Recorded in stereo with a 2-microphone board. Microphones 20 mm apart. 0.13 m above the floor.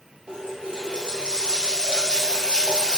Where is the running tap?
50° right (ahead or behind), 1.3 m.